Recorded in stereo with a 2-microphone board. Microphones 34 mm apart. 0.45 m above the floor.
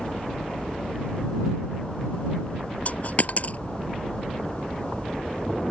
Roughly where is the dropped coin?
Left.